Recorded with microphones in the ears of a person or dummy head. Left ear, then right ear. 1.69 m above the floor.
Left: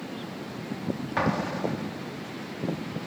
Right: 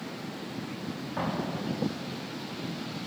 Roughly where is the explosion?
Left.